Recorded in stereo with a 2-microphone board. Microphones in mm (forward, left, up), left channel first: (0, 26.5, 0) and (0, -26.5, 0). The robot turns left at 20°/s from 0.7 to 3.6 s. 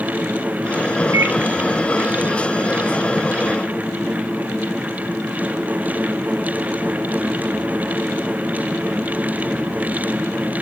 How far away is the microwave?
About 2.0 m.